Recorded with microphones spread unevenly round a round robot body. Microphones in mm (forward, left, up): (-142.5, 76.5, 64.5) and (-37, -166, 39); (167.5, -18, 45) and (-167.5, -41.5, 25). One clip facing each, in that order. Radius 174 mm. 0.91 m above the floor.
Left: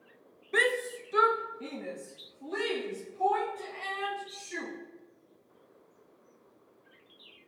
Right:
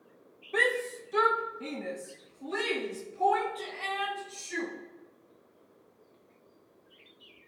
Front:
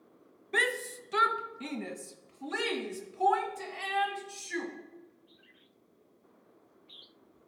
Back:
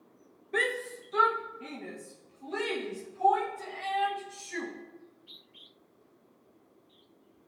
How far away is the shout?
About 0.6 m.